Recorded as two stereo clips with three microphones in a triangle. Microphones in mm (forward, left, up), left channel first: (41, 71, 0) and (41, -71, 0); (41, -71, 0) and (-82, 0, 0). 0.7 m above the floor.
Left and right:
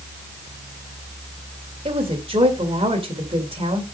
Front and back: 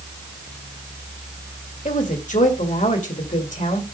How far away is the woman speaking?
About 2 m.